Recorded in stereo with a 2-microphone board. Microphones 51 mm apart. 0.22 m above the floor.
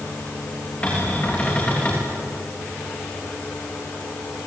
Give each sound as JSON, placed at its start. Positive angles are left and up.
{"t": 0.8, "sound": "a cupboard door", "side_deg": 25, "distance_m": 8.0}